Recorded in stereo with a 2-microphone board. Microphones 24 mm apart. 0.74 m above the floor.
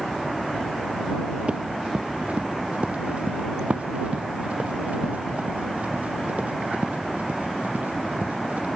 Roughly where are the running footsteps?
Right.